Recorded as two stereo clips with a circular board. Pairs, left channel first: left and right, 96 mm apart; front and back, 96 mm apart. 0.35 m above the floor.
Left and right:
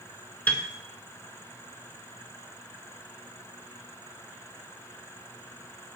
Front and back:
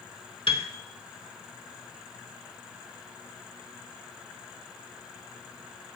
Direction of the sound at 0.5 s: 20° left.